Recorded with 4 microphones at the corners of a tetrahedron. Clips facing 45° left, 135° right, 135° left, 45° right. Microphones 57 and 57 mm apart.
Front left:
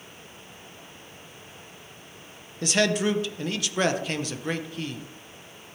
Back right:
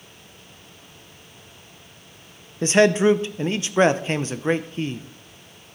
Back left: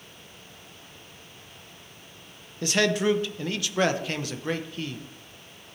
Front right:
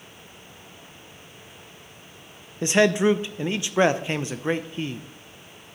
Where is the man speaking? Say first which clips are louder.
Back right 8 dB, front right 4 dB; 95° right, 0.6 m.